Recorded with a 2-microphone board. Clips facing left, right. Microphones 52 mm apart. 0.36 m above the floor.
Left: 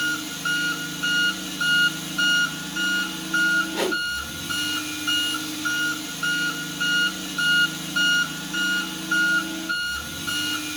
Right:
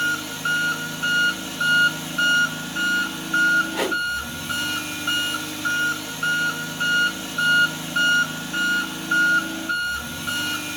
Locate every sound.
0.0 s an engine running: 30° right (ahead or behind), 1.0 m
3.7 s a whoosh: 10° right (ahead or behind), 1.6 m